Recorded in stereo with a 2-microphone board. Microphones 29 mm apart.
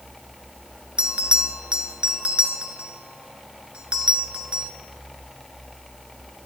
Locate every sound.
1.0 s a bell: 35° right (ahead or behind), 1.1 m